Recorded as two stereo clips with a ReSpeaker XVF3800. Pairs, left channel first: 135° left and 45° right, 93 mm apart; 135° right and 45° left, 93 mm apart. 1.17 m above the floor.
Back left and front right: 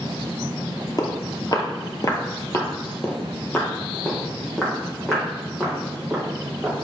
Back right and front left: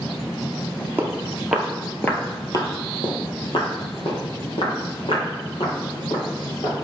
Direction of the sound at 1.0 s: 105° left.